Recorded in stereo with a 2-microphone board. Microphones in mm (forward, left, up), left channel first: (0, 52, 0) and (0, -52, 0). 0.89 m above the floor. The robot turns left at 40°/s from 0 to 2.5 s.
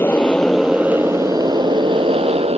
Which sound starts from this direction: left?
A motorcycle, at 0.0 s.